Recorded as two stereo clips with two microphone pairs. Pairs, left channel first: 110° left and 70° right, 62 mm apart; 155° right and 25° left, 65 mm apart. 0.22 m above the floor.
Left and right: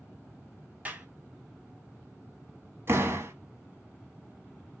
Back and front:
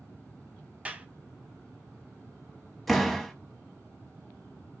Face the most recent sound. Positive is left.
turn(degrees=-65)